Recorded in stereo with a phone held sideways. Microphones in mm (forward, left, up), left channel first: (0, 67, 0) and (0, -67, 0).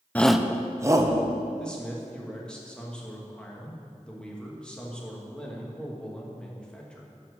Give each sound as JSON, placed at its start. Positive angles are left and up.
{"t": 0.1, "sound": "a shout", "side_deg": 10, "distance_m": 0.6}
{"t": 1.6, "sound": "a man speaking", "side_deg": 5, "distance_m": 1.9}